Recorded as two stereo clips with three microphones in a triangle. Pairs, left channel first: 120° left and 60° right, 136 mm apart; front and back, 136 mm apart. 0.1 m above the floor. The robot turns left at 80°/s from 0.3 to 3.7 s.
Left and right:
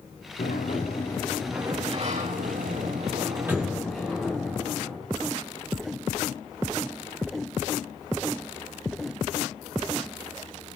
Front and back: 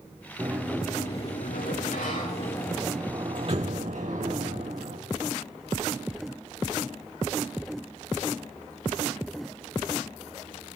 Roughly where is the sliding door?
Behind left.